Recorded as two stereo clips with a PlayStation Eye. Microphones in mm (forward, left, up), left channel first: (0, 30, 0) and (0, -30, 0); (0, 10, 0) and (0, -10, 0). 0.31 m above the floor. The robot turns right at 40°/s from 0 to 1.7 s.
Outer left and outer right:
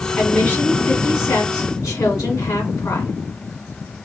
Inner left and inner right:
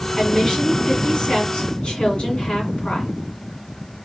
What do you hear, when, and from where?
0.2 s a woman speaking: 15° left, 2.5 m; by 3.1 s 80° left, 2.5 m